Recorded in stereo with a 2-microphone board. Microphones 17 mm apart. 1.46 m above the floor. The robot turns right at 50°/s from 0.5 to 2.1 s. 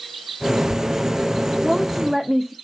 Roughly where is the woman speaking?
Centre.